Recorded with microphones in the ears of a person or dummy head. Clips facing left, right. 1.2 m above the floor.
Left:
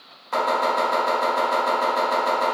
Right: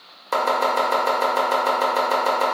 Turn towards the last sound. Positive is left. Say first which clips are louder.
# right 1 dB
turn(degrees=-70)  # may be behind; listen again after turning